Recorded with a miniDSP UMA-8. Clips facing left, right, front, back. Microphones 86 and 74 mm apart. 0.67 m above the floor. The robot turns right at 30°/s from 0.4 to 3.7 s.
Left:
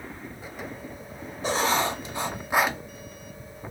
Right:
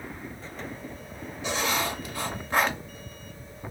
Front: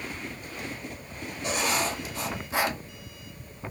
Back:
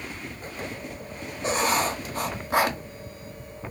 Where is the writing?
135° left, 0.6 m; by 2.8 s 175° left, 0.6 m.